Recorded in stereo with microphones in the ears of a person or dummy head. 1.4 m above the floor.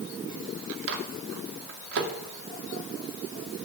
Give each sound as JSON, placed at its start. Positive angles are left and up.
{"t": 0.9, "sound": "a microwave", "side_deg": -65, "distance_m": 1.9}